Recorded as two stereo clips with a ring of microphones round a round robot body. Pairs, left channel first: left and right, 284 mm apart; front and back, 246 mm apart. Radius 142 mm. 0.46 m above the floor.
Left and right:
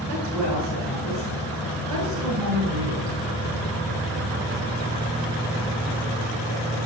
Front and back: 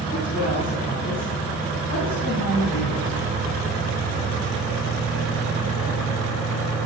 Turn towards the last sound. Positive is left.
turn(degrees=-60)